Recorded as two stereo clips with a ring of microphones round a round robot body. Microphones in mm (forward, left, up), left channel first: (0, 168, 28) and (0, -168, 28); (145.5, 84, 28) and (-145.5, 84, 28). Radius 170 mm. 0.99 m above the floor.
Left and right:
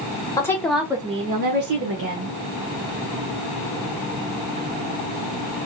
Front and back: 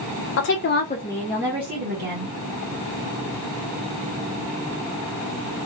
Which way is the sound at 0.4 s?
10° left.